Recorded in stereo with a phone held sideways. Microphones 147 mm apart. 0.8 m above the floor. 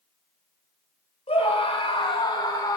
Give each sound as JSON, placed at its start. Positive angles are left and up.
{"t": 1.3, "sound": "a scream", "side_deg": 45, "distance_m": 3.5}